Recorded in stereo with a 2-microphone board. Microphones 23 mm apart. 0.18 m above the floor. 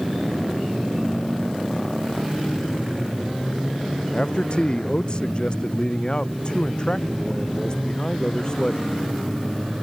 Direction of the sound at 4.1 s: 40° left (ahead or behind).